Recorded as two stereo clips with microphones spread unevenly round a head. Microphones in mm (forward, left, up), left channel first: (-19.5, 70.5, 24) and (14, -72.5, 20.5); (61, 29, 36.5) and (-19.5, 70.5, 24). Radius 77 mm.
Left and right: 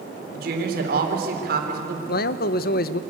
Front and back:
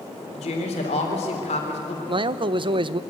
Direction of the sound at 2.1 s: 125° left.